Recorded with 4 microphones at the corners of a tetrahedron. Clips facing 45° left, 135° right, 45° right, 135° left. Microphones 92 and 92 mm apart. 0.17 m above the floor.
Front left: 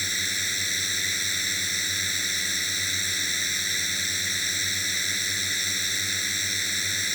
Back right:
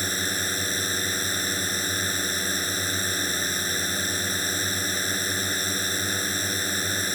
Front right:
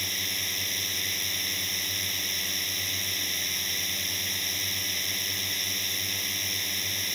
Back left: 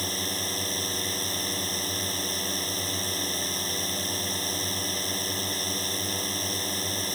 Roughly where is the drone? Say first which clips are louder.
Back right 4 dB, back left 5 dB; behind.